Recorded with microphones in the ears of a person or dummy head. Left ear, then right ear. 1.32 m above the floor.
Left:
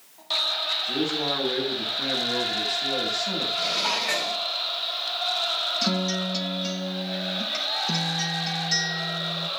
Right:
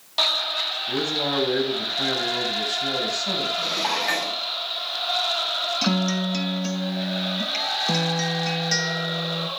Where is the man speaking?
70° right (ahead or behind), 9 m.